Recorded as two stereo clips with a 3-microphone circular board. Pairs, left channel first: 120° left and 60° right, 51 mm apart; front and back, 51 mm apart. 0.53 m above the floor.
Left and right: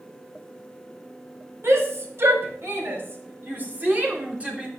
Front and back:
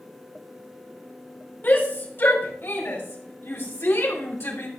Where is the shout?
45° right, 4 m; by 4.7 s 5° left, 2.5 m.